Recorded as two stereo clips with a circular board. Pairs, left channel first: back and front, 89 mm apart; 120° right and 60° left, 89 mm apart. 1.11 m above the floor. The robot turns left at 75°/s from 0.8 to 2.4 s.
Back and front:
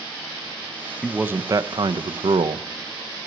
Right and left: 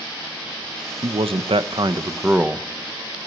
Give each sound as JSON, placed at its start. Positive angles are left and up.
{"t": 1.0, "sound": "a man speaking", "azimuth_deg": 85, "distance_m": 0.6}